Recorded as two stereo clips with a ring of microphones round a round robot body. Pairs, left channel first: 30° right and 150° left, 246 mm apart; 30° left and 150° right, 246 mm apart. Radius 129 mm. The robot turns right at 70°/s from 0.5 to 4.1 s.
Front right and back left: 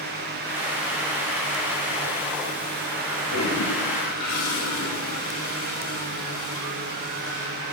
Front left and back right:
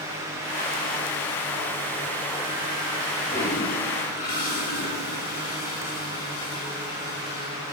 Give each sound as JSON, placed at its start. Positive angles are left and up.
{"t": 3.3, "sound": "a toilet flushing", "azimuth_deg": -60, "distance_m": 4.0}